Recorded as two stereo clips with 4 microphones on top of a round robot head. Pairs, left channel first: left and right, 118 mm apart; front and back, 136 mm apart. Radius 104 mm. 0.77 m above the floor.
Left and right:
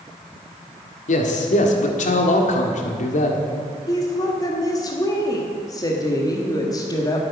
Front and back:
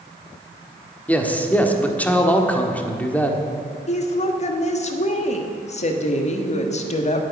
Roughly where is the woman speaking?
Ahead left.